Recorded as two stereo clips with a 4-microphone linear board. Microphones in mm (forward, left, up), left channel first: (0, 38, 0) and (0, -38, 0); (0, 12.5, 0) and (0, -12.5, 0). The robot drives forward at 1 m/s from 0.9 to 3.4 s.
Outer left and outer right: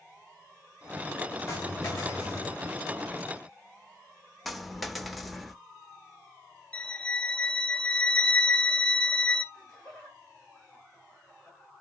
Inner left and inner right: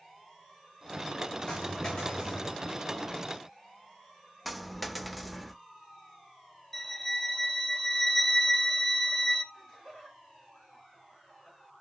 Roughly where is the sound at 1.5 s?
Left.